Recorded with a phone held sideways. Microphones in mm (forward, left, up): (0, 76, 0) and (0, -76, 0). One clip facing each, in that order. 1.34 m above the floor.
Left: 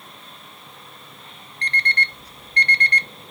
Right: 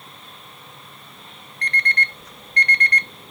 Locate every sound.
1.6 s an alarm clock: 30° left (ahead or behind), 0.6 m